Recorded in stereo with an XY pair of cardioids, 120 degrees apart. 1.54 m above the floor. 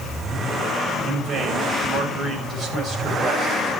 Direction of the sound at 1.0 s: 45° right.